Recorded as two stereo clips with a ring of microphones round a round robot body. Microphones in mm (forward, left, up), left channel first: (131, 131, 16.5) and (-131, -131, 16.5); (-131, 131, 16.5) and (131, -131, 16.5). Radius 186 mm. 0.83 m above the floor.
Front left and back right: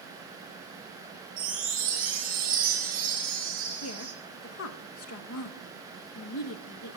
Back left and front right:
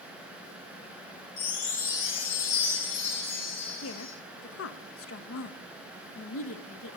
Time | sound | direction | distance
1.4 | a chime | 155° left | 2.5 m
3.8 | a woman speaking | 90° left | 0.7 m